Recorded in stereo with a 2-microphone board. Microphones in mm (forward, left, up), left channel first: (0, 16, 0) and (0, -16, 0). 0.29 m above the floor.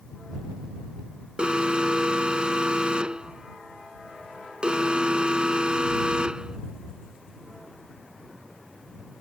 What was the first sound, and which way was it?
An alarm, 30° right (ahead or behind).